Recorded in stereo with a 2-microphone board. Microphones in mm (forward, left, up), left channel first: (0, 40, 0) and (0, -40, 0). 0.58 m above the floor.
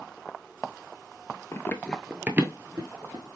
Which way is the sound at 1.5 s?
35° left (ahead or behind).